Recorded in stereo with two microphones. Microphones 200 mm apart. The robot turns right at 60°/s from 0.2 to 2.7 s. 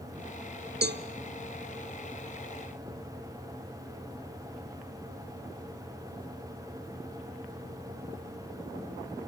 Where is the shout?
No shout in this recording.